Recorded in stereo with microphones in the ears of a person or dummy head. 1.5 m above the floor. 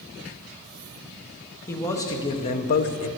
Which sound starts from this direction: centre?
A man speaking, at 1.7 s.